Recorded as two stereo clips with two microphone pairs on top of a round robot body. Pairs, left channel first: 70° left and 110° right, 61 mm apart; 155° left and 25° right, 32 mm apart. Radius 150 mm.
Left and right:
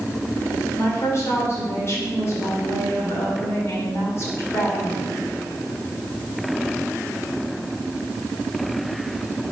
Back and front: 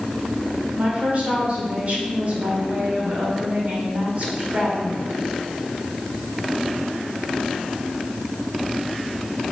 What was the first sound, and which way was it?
A woman speaking, 25° left.